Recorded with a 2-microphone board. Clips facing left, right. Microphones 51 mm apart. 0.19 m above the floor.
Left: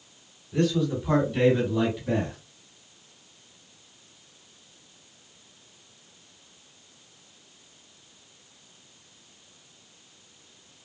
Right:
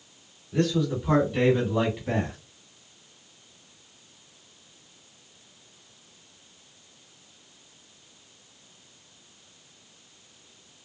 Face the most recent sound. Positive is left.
turn(degrees=-30)  # may be behind; listen again after turning